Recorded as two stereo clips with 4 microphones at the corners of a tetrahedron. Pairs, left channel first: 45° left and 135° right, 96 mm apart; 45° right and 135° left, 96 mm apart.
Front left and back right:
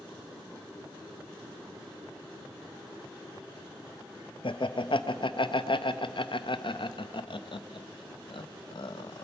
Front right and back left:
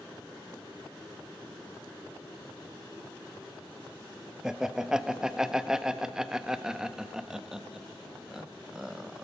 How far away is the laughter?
About 0.6 m.